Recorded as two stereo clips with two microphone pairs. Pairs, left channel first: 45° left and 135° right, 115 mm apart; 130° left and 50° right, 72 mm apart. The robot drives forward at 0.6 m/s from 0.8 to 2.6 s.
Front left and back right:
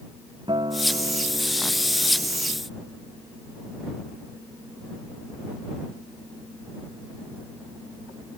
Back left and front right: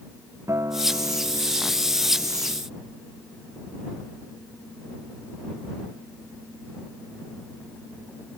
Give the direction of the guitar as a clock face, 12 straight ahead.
3 o'clock.